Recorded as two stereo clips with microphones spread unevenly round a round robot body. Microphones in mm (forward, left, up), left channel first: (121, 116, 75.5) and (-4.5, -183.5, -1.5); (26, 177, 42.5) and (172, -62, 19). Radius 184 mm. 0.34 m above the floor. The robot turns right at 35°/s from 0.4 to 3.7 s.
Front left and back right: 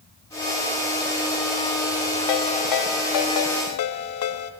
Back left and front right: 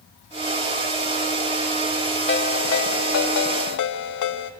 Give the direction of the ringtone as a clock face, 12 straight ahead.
10 o'clock.